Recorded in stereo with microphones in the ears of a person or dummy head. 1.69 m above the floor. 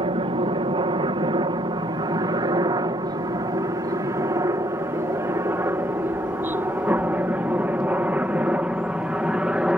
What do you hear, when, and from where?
0.0 s a helicopter: 30° right (ahead or behind); by 9.8 s 5° right (ahead or behind)